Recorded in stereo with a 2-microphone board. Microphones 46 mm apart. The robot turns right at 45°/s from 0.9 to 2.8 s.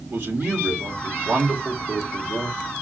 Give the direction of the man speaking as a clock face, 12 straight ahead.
2 o'clock.